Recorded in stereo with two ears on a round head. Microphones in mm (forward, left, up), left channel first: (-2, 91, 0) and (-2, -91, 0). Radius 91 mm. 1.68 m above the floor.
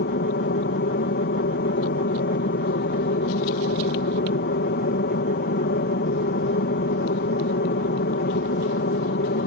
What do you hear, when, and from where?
0.0 s an aircraft: 50° left (ahead or behind)